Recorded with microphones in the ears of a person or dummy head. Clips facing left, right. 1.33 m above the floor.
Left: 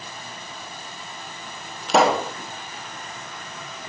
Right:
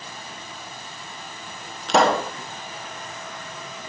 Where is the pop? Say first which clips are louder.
Even; 5° left (ahead or behind), 1.0 m.